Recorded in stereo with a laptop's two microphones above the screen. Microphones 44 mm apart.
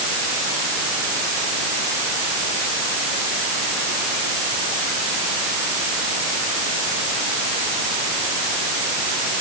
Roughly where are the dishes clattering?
No dishes clattering in this recording.